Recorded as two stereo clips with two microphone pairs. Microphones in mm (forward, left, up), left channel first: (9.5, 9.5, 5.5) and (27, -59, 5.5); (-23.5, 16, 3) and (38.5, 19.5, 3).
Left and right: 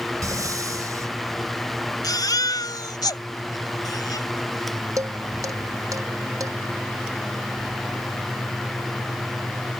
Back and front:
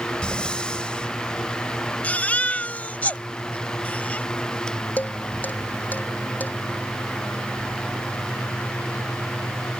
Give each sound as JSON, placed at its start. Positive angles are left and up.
{"t": 0.2, "sound": "breathing", "azimuth_deg": -105}
{"t": 2.0, "sound": "a baby crying", "azimuth_deg": 120}
{"t": 5.0, "sound": "dishes clattering", "azimuth_deg": -115}